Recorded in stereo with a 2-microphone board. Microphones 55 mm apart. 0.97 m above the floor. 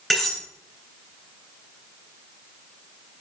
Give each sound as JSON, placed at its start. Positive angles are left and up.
{"t": 0.1, "sound": "cutlery clinking", "side_deg": 0, "distance_m": 3.0}